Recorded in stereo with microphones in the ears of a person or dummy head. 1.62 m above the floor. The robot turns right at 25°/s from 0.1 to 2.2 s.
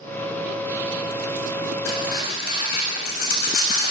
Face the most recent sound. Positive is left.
turn(degrees=55)  # may be behind; listen again after turning